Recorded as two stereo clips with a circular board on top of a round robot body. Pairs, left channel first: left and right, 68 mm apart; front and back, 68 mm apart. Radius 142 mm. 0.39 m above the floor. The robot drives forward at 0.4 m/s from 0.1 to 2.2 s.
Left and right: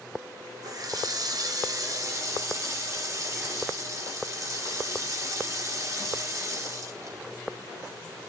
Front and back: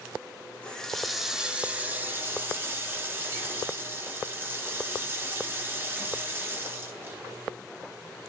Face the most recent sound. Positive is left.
turn(degrees=-125)